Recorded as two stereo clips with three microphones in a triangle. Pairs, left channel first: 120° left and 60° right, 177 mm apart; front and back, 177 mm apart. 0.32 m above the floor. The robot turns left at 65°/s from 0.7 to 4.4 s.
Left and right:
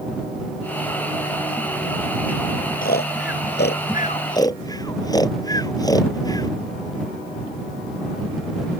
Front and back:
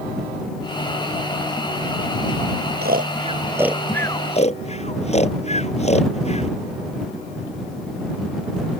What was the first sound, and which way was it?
Snoring, 155° left.